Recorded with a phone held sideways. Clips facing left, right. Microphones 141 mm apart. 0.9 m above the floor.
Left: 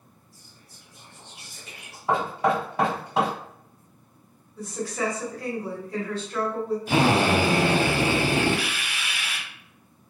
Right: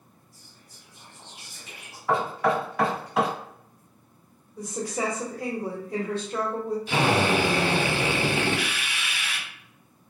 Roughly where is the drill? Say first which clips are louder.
Left 2 dB; left.